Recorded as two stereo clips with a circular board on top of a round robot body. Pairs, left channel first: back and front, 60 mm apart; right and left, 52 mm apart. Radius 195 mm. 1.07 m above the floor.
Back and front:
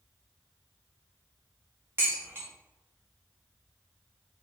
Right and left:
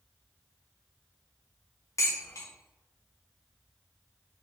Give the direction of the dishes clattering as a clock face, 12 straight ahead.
2 o'clock.